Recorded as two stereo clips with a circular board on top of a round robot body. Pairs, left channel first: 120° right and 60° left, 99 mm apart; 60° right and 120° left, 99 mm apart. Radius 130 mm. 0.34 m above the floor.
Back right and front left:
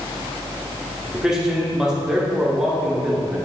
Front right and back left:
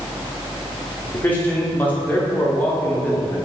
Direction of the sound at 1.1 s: 15° right.